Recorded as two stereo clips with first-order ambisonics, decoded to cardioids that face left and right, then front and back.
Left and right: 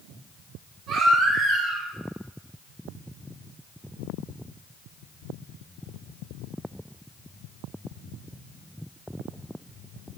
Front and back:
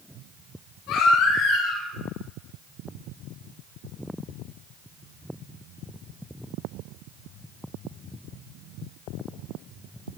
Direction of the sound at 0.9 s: 30° right.